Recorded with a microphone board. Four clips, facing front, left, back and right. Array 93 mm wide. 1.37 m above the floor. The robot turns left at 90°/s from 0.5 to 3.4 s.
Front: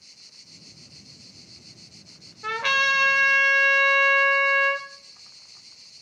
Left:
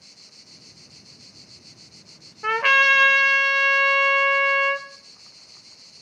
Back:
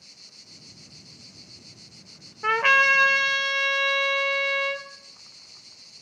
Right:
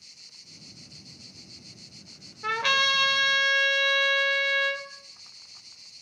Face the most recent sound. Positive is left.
turn(degrees=60)